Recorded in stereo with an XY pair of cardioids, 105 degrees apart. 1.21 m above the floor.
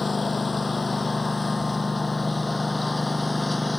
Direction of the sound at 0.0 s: 25° left.